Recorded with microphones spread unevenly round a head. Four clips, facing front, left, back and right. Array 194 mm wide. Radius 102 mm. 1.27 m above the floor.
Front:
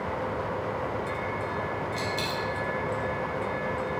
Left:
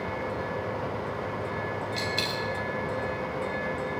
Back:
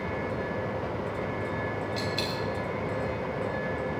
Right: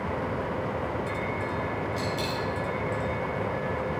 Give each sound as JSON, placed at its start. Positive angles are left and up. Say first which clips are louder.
{"t": 2.0, "sound": "a dropped coin", "louder": "right 1 dB, front 1 dB", "azimuth_deg": 85, "distance_m": 3.5}